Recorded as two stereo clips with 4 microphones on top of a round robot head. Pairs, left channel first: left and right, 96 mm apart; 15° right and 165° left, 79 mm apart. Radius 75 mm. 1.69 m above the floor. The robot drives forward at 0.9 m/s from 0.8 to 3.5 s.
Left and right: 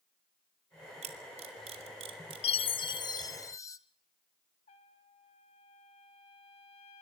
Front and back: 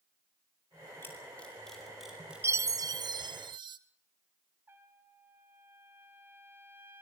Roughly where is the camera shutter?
Right.